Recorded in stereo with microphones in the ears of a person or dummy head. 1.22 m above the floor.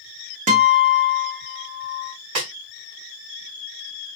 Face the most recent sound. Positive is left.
turn(degrees=-40)  # may be behind; listen again after turning